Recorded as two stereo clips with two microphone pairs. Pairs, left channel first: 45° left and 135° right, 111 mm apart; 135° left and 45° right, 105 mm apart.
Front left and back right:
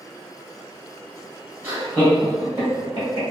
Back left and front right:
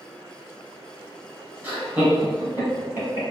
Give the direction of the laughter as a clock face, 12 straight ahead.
3 o'clock.